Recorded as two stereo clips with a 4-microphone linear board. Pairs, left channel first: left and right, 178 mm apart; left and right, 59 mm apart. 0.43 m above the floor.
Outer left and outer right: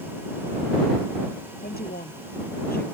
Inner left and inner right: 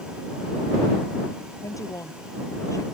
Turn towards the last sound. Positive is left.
turn(degrees=60)  # may be behind; listen again after turning